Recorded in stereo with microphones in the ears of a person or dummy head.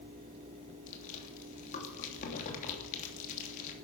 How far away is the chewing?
About 3 m.